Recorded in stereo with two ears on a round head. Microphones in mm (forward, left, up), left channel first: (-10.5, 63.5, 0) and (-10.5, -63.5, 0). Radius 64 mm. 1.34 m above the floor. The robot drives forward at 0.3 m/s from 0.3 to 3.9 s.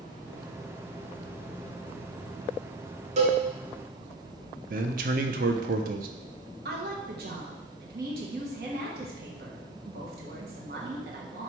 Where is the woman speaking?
80° right, 1.1 m.